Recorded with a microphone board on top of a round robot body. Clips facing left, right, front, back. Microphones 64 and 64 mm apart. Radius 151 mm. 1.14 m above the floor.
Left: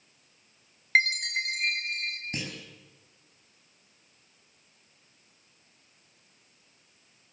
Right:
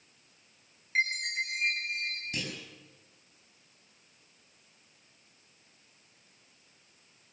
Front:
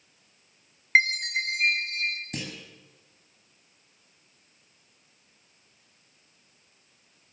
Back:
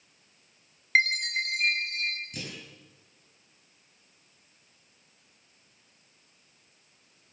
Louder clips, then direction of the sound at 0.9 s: Left 5 dB, front 2 dB; 65° left.